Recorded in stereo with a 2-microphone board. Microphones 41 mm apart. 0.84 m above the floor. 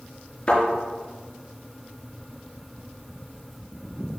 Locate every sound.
0.5 s a thud: 30° left (ahead or behind), 4 m